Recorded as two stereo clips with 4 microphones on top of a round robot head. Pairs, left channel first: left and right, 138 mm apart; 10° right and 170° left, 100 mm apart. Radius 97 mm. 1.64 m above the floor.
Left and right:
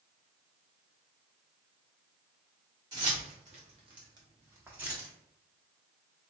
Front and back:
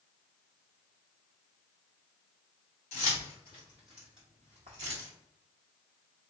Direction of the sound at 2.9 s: 25° right.